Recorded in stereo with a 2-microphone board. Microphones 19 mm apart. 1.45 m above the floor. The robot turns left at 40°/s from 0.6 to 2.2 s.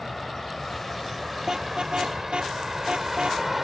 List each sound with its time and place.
0.0 s a vehicle: 20° left (ahead or behind); by 3.6 s 10° right (ahead or behind)
1.5 s a car horn: 35° right (ahead or behind); by 3.4 s 65° right (ahead or behind)